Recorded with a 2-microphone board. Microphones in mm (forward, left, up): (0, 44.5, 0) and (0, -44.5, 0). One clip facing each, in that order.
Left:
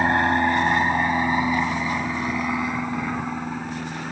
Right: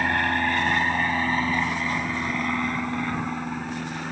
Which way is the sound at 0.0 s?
20° left (ahead or behind).